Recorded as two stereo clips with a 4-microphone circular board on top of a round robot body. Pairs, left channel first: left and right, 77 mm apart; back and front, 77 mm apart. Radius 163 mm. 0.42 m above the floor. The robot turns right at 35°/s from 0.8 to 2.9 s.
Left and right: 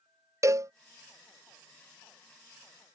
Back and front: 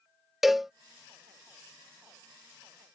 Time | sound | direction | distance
0.4 | a cowbell | 85° right | ?